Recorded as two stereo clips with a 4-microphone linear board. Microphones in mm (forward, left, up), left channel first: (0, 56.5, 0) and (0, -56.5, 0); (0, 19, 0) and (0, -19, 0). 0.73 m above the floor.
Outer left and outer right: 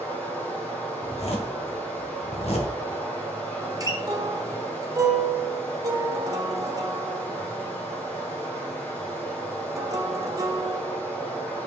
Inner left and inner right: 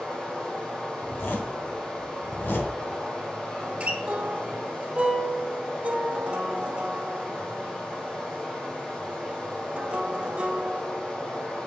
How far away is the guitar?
About 1.0 m.